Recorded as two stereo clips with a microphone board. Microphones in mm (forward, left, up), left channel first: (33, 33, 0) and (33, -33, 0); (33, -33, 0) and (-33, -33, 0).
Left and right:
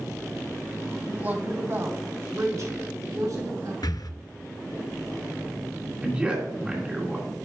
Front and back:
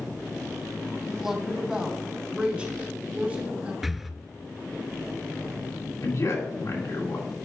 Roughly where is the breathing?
Left.